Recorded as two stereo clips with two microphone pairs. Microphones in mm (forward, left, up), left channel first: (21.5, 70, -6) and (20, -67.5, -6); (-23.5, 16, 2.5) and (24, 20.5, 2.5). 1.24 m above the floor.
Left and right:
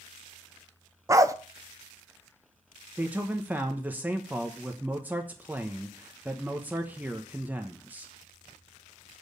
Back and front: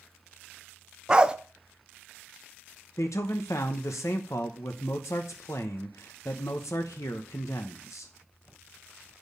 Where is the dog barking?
50° right, 0.6 m.